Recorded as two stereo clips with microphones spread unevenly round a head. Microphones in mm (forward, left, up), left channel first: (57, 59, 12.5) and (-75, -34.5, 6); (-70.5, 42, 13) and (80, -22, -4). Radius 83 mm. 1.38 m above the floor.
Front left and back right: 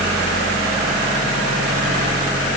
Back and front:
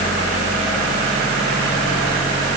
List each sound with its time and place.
Only background noise.